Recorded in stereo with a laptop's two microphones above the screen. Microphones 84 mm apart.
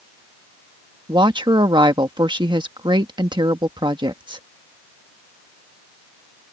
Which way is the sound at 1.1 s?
65° right (ahead or behind).